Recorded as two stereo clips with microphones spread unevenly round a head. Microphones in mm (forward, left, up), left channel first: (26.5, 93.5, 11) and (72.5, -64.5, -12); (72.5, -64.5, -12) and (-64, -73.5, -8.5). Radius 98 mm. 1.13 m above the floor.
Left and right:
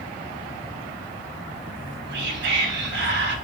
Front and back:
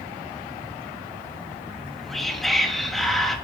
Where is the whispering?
85° right, 2.5 m.